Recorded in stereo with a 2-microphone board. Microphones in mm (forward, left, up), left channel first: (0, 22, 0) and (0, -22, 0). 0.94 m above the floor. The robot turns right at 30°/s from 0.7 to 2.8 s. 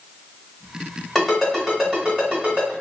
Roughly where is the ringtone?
Centre.